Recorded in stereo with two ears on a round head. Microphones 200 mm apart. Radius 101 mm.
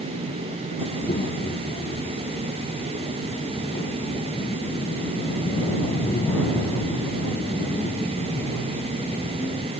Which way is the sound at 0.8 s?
30° left (ahead or behind).